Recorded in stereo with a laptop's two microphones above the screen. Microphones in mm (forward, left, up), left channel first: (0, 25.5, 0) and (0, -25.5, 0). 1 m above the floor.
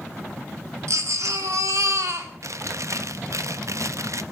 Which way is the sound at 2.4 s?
70° right (ahead or behind).